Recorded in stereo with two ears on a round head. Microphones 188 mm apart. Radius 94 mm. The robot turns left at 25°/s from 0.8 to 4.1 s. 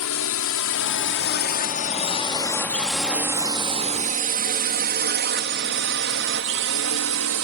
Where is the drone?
70° left (ahead or behind); by 7.5 s 70° right (ahead or behind).